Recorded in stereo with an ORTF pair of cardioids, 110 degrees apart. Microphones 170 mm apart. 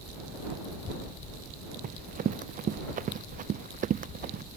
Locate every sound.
1.8 s running footsteps: 50° right